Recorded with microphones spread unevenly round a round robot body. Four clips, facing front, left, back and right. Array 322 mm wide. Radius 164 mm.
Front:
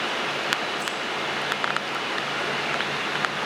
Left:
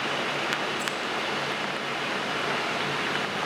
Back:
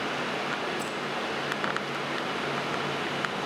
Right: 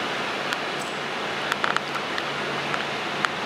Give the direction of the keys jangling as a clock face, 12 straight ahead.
6 o'clock.